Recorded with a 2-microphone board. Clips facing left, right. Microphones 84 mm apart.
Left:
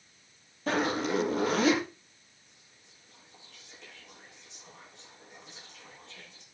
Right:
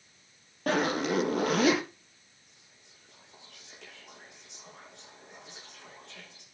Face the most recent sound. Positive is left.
turn(degrees=-80)